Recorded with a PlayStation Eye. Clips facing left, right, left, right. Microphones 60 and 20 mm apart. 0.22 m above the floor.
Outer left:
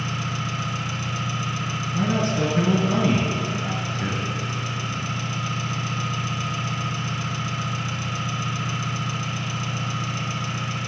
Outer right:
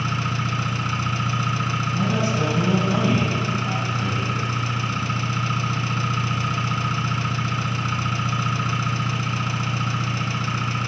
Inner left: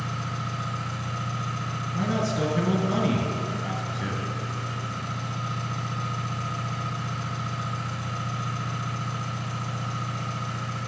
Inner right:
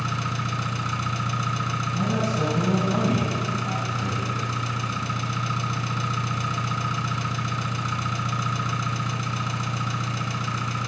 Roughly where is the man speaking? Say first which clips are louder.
Outer left 2 dB, inner left 1 dB; left.